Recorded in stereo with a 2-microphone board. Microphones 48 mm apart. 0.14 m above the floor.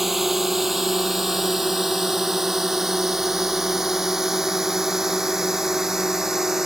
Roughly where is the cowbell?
I don't hear a cowbell.